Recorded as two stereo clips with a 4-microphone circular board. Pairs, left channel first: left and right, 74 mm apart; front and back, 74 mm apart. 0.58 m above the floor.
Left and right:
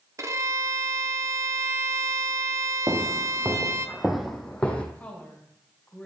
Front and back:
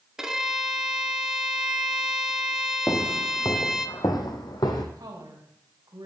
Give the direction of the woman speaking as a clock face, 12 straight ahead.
7 o'clock.